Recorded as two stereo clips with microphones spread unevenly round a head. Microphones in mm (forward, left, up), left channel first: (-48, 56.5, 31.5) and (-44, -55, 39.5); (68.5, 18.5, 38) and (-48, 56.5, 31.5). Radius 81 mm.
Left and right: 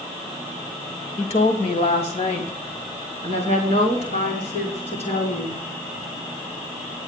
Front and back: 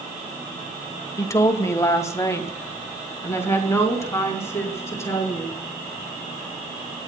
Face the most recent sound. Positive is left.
turn(degrees=50)